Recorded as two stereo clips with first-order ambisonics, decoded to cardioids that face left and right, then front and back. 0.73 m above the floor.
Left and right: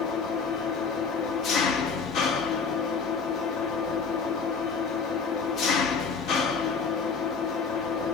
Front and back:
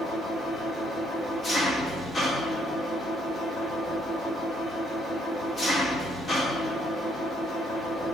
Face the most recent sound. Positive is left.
turn(degrees=75)